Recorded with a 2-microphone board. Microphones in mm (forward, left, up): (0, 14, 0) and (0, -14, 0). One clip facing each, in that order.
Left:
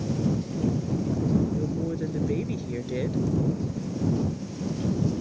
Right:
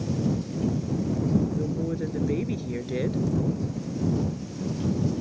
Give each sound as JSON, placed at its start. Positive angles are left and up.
{"t": 1.5, "sound": "a woman speaking", "side_deg": -5}